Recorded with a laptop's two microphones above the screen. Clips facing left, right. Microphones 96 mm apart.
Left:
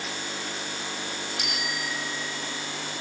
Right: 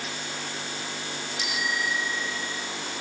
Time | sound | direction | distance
1.4 | a bicycle bell | 60° left (ahead or behind) | ?